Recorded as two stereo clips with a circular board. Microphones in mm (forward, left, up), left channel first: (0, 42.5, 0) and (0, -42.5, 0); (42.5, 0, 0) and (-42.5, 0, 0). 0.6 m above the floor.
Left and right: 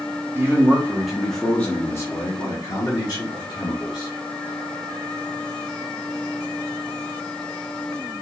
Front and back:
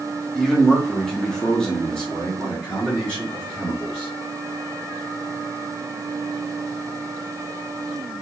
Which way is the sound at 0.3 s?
85° right.